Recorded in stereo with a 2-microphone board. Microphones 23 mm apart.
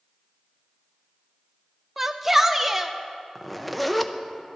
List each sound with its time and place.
2.0 s a shout: 10° right (ahead or behind), 0.7 m
3.4 s a zipper: 5° left (ahead or behind), 0.6 m